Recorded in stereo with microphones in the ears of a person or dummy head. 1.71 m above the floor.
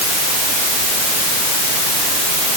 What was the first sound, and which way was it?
Only background noise.